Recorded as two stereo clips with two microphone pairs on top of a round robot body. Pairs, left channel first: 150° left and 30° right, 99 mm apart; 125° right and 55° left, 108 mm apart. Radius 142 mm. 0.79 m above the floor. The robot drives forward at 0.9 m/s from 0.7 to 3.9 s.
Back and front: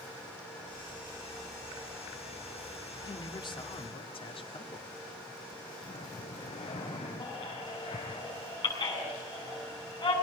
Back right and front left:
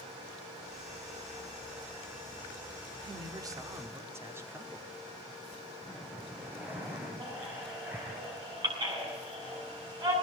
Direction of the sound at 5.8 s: 130° left.